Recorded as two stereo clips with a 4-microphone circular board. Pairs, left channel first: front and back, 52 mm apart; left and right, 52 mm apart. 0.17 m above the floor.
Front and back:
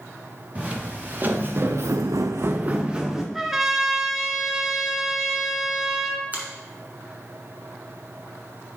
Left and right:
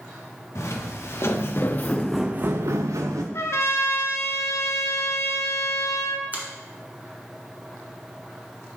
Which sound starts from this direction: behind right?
A finger snap, at 6.3 s.